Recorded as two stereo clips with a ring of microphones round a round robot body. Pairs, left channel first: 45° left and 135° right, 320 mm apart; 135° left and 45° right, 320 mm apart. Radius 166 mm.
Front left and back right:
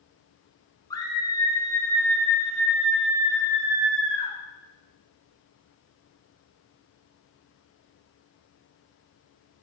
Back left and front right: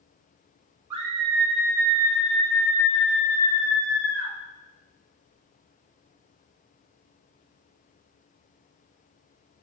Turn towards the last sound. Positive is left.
turn(degrees=140)